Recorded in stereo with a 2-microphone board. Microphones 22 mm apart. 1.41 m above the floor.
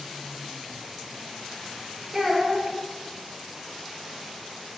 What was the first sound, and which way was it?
A child speaking, 20° right (ahead or behind).